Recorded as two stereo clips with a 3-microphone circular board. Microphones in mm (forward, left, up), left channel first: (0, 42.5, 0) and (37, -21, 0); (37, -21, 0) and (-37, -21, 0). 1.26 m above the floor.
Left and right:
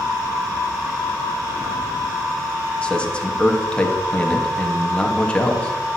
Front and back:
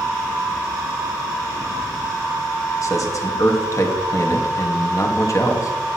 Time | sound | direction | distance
2.8 | a man speaking | 45° left | 1.5 m